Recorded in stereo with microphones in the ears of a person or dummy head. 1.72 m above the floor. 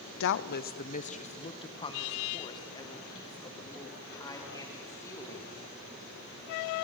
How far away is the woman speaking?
About 0.8 m.